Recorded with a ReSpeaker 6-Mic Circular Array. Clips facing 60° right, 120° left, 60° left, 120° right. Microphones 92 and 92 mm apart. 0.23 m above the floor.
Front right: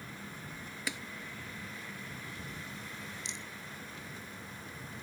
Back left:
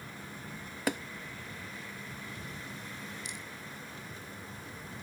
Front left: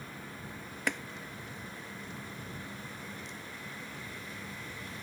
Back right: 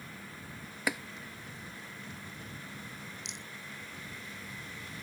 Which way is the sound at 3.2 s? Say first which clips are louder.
Back left 1 dB, front left 2 dB; 125° right.